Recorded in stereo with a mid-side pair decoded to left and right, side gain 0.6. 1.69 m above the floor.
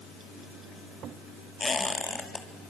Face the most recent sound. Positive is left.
turn(degrees=25)